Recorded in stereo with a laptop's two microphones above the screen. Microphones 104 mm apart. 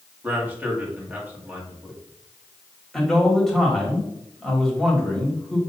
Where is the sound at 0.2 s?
15° right (ahead or behind), 2 m.